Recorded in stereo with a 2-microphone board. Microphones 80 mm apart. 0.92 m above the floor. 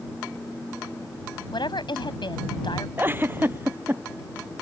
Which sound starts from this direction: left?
A woman speaking, at 1.5 s.